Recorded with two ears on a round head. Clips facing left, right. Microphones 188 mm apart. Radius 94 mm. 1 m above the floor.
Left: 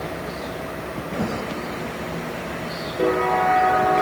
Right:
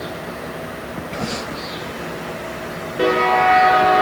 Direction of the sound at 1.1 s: 45° left (ahead or behind).